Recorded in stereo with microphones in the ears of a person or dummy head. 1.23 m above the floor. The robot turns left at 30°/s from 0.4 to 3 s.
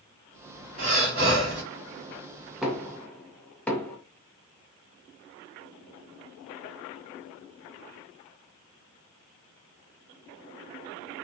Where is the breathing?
40° right (ahead or behind), 1.2 m; by 1.6 s 60° right (ahead or behind), 1.2 m.